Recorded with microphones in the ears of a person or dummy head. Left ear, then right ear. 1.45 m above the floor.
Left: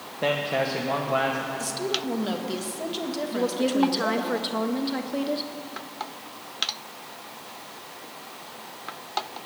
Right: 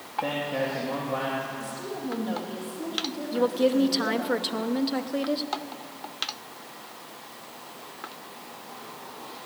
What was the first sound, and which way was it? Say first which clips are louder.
A man speaking: left 4 dB; 50° left (ahead or behind).